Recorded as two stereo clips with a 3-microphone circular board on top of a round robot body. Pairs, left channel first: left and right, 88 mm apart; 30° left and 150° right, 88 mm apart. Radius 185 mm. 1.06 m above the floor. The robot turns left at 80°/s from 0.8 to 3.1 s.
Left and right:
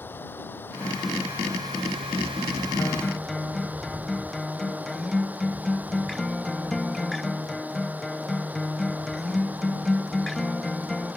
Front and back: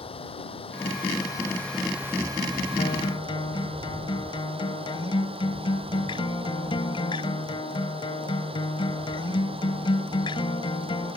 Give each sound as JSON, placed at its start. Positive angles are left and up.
{"t": 0.0, "sound": "running water", "azimuth_deg": 20}
{"t": 2.8, "sound": "a guitar", "azimuth_deg": 25}